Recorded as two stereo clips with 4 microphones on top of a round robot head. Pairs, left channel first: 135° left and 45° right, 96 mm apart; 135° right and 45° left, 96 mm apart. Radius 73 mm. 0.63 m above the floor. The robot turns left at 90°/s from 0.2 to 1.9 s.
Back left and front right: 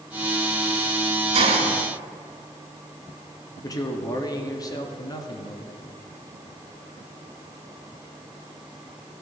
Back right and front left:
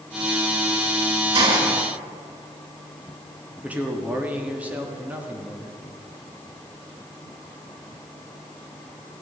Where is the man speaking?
110° left, 1.5 m.